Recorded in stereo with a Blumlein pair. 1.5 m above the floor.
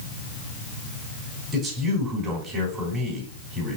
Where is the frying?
I don't hear frying.